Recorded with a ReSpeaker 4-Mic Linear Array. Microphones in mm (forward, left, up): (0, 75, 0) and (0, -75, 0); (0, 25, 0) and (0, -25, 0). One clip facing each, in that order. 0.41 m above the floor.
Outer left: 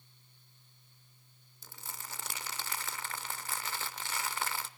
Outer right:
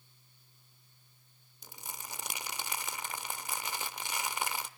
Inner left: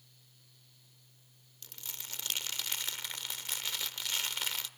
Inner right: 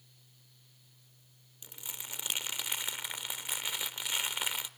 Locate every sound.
1.6 s crumpling: 15° right (ahead or behind), 0.6 m